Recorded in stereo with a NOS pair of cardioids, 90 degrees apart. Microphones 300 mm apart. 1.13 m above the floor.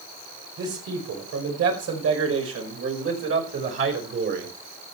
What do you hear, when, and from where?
0.6 s a man speaking: 70° right, 5 m; by 4.5 s 40° right, 5.5 m